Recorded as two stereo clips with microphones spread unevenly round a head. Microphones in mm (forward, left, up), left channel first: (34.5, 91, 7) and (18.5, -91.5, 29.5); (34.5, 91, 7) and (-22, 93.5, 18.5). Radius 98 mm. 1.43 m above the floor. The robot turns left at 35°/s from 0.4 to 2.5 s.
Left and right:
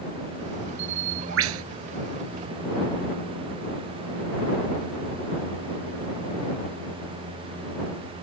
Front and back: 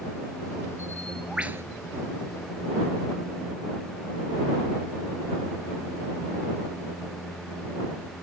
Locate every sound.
0.8 s a bird: 80° right; by 1.6 s 110° right